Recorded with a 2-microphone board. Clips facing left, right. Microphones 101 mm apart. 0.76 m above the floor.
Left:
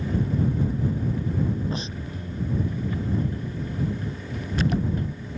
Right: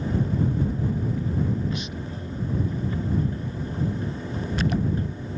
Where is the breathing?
35° left (ahead or behind).